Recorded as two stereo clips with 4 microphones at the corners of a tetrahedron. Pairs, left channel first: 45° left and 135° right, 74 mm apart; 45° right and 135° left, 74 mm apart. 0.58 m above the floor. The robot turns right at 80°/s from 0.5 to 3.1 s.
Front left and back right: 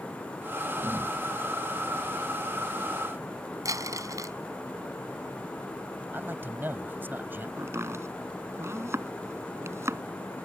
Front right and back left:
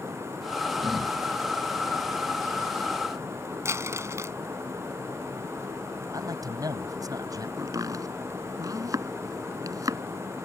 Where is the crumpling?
175° right.